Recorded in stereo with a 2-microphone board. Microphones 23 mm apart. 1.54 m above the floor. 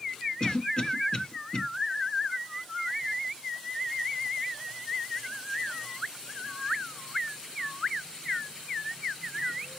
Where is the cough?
35° left (ahead or behind), 0.7 m.